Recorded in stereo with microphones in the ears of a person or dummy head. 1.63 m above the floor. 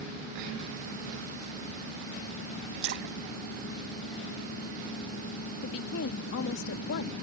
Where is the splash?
60° right (ahead or behind).